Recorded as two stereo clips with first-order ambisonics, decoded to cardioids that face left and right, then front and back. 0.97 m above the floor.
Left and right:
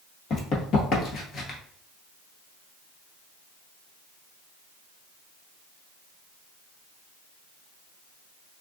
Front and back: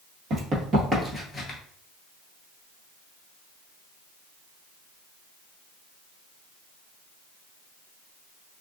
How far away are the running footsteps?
About 1.5 m.